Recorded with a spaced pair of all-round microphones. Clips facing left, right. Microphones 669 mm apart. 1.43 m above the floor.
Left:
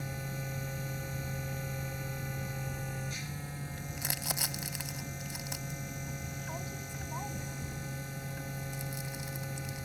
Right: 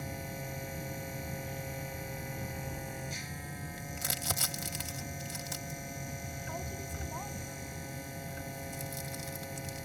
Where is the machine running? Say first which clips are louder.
Even; 40° left (ahead or behind).